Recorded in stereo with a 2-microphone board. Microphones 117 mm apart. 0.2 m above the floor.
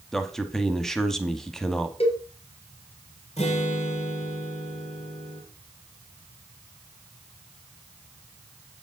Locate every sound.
0.1 s a man speaking: 5° left (ahead or behind), 1.1 m
2.0 s a cowbell: 60° left (ahead or behind), 3.5 m
3.4 s a guitar: 65° left (ahead or behind), 3 m